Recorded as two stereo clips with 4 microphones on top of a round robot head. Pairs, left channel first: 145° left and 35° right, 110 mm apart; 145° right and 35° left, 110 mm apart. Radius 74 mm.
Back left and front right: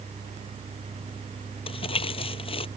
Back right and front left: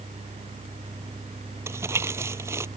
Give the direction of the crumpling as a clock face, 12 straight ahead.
9 o'clock.